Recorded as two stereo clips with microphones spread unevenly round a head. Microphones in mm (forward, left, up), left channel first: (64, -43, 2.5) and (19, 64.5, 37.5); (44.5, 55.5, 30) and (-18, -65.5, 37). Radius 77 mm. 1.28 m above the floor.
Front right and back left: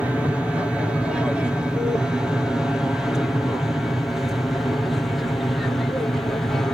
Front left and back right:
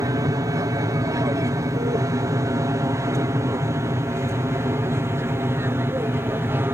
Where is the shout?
I don't hear a shout.